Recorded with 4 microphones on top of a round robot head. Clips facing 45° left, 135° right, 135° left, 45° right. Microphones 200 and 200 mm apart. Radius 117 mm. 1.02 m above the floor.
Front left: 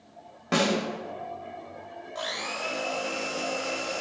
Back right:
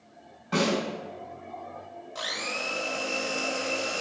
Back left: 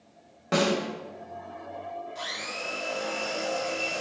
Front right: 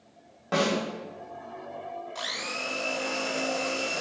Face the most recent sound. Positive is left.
turn(degrees=-70)